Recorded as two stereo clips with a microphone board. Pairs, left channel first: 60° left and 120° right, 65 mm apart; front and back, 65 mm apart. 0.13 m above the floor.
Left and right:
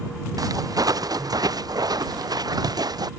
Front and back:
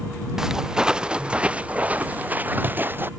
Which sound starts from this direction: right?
Footsteps, at 0.4 s.